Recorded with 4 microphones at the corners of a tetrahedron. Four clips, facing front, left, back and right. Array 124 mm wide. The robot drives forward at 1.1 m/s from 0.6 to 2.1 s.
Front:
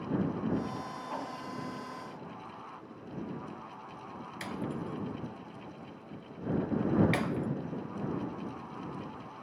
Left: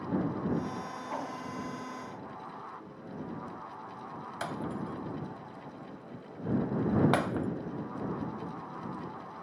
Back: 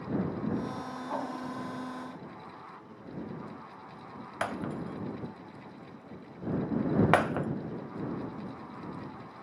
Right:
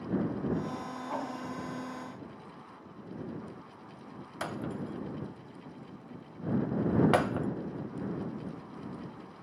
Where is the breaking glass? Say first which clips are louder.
Even, back 3 dB; 170° left, 1.4 m.